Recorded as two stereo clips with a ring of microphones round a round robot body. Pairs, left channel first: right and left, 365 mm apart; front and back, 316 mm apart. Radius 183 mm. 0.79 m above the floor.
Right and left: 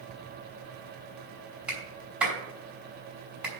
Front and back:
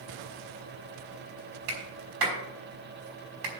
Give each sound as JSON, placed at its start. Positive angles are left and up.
{"t": 1.7, "sound": "a clap", "azimuth_deg": 180, "distance_m": 5.0}